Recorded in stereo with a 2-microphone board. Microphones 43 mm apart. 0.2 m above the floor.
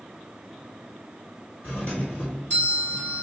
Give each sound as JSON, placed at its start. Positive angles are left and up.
{"t": 1.6, "sound": "a doorbell", "side_deg": 50, "distance_m": 3.0}